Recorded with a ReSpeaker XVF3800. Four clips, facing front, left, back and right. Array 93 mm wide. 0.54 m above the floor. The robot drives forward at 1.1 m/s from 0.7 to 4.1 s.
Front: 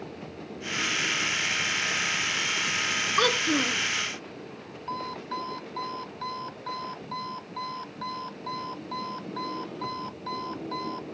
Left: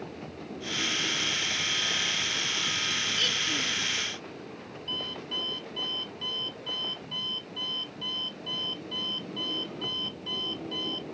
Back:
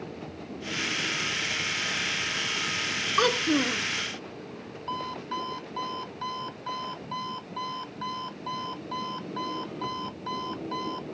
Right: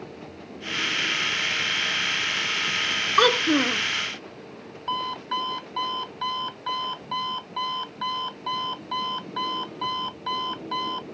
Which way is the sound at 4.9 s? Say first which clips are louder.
Right 11 dB, even; 100° right.